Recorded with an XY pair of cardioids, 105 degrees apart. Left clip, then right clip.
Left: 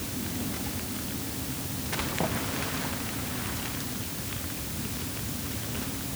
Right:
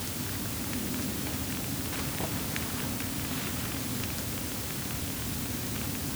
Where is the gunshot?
No gunshot in this recording.